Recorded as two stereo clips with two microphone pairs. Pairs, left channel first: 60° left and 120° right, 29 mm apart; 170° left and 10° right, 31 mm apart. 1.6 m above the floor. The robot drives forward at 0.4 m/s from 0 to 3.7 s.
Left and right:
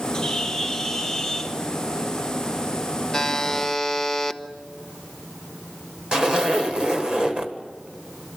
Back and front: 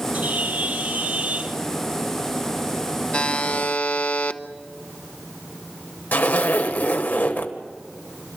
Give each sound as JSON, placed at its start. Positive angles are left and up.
{"t": 0.1, "sound": "a bird", "azimuth_deg": -15, "distance_m": 1.8}
{"t": 3.1, "sound": "a buzzer", "azimuth_deg": 130, "distance_m": 0.8}
{"t": 6.1, "sound": "a zipper", "azimuth_deg": 180, "distance_m": 1.7}